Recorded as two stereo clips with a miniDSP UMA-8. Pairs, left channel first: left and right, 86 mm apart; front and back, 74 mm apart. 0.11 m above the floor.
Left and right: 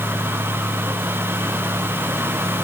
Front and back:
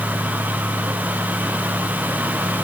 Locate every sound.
Only background noise.